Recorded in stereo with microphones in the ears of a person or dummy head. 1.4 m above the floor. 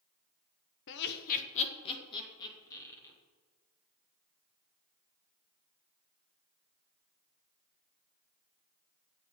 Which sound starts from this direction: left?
Laughter, at 0.9 s.